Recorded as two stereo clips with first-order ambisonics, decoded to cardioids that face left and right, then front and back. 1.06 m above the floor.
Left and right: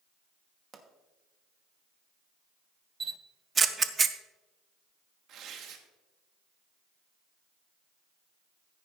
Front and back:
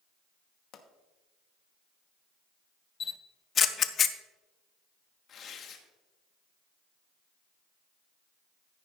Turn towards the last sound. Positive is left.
turn(degrees=-50)